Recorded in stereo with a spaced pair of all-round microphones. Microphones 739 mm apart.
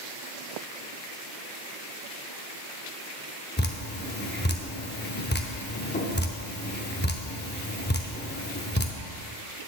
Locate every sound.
3.6 s dripping: 15° left (ahead or behind), 0.7 m